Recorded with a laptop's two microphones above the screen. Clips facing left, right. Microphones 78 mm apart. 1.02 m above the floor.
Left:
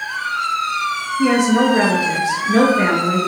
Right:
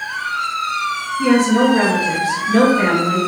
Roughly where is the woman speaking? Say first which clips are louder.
Right 1 dB; centre.